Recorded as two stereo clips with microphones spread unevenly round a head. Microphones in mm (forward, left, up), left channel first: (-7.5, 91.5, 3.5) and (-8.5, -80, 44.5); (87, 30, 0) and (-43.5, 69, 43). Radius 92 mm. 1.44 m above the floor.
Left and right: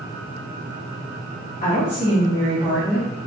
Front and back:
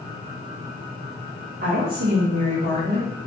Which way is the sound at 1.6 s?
130° left.